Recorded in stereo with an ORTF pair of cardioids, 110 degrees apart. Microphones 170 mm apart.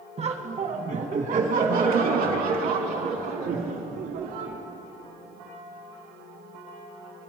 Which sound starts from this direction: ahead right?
Laughter, at 0.2 s.